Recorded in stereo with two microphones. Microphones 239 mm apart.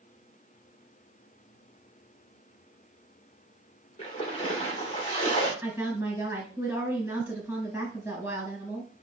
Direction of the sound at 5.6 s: 5° right (ahead or behind).